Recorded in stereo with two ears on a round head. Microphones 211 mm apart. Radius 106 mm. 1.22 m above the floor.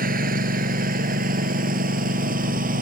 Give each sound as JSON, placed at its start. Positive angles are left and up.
{"t": 0.0, "sound": "a lawn mower", "side_deg": -40}